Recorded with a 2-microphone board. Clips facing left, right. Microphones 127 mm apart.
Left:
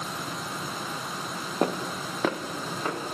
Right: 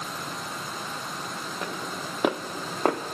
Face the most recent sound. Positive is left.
turn(degrees=-60)  # may be behind; listen again after turning